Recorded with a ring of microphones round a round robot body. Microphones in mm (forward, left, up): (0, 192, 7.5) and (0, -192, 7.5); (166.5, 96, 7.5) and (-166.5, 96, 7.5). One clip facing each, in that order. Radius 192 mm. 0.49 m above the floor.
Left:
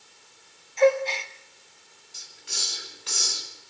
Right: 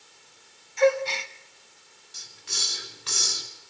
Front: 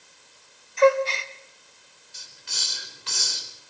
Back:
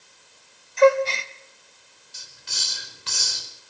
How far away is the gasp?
About 1.3 m.